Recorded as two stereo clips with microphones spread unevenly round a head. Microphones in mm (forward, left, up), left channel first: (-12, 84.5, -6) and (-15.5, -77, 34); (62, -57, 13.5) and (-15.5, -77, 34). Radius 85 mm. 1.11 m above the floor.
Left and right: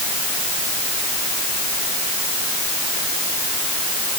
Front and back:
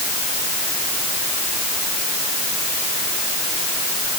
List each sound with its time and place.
Only background noise.